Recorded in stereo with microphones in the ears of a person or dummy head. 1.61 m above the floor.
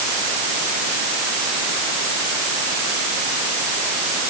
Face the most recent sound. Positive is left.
No sound to turn to.